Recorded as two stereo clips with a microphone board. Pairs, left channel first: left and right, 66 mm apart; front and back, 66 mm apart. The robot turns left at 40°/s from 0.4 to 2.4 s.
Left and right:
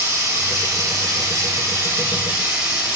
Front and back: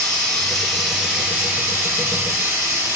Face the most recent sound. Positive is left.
turn(degrees=-155)